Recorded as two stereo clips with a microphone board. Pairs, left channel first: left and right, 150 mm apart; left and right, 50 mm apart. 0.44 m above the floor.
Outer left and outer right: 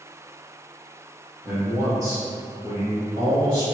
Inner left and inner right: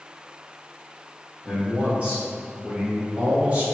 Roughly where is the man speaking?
Centre.